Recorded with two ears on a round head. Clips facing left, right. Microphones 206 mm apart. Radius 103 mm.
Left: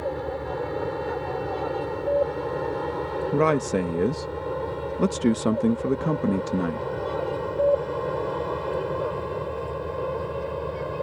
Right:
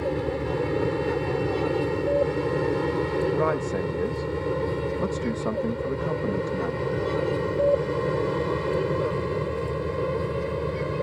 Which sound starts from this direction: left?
A man speaking, at 3.3 s.